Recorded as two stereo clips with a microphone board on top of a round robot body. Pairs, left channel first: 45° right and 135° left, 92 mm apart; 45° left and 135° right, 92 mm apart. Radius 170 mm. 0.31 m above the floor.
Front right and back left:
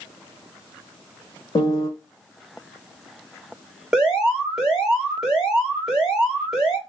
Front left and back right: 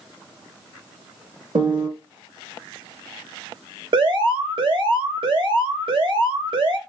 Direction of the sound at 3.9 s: 140° right.